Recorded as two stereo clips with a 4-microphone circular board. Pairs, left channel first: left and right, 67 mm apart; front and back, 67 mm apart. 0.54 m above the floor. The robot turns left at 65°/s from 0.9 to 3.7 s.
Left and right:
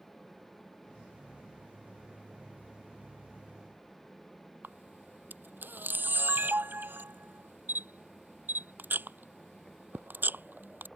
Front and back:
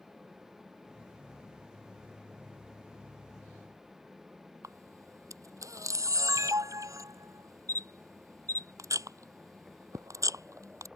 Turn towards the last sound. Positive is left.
turn(degrees=-150)